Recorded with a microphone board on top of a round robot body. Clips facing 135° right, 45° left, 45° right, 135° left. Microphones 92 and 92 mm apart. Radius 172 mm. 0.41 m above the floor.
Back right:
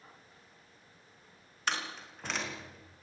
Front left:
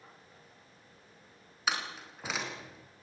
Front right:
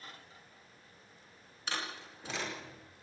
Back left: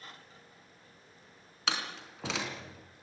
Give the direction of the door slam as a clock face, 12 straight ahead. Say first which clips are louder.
Front left 1 dB, back left 3 dB; 8 o'clock.